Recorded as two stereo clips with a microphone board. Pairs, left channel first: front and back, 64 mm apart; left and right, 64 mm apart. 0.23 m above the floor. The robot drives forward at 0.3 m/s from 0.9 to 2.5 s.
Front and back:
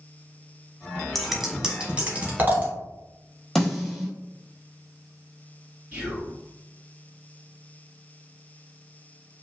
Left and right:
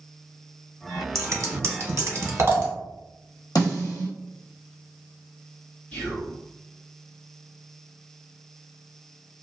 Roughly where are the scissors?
Right.